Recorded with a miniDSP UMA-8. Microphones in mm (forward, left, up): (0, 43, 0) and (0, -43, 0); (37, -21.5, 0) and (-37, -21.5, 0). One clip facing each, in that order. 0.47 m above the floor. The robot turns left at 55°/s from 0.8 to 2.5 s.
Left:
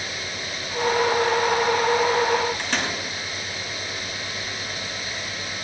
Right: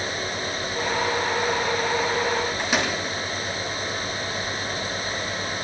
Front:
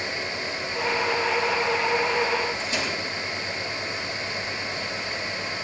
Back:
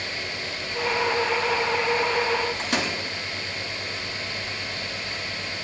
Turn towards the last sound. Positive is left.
turn(degrees=-170)